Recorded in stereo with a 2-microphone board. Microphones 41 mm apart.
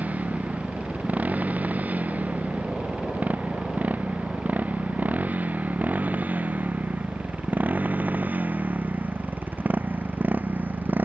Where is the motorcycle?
45° right (ahead or behind); by 11.1 s 55° right (ahead or behind).